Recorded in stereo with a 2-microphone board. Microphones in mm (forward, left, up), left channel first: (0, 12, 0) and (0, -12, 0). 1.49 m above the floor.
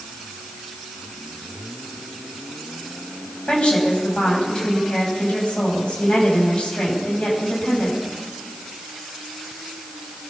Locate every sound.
3.5 s a woman speaking: 55° left (ahead or behind), 9 m